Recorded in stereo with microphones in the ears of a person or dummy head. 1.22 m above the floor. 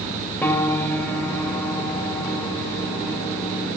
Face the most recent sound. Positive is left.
turn(degrees=10)  # may be behind; listen again after turning